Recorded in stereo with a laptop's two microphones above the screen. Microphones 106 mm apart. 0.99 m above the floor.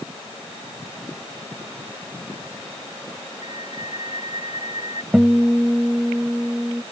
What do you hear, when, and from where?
3.4 s a flute: 85° left
5.1 s a guitar: 10° right (ahead or behind)